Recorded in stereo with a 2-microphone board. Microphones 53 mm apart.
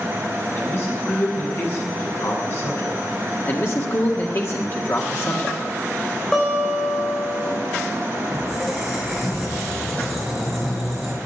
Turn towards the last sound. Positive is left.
turn(degrees=5)  # may be behind; listen again after turning